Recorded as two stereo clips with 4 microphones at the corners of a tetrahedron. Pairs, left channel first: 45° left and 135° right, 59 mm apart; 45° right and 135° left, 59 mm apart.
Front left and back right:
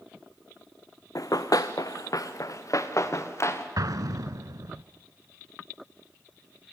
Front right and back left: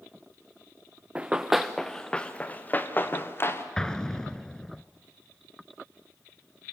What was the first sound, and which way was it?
Running footsteps, 65° left.